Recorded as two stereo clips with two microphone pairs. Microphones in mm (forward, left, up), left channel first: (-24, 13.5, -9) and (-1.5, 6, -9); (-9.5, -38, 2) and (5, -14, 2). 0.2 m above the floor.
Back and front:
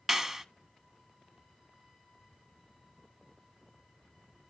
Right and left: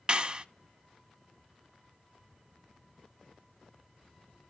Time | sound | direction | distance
0.1 | a clap | 45° left | 1.1 m